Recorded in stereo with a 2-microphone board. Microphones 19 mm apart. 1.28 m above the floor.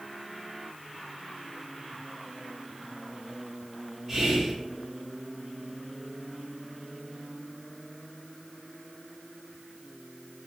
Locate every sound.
4.1 s whispering: 10° right (ahead or behind), 0.9 m